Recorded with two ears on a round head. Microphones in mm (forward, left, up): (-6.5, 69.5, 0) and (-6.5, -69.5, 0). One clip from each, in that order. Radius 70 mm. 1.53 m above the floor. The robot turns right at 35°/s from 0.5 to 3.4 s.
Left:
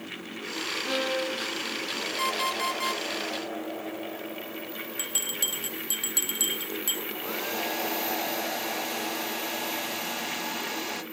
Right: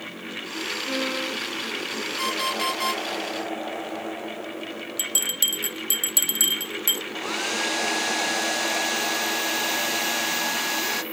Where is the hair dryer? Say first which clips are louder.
Right 5 dB; 35° right (ahead or behind), 1.0 m.